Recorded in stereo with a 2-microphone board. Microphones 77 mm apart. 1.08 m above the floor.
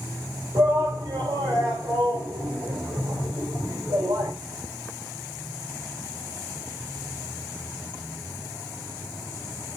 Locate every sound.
0.6 s a shout: 70° right (ahead or behind), 3 m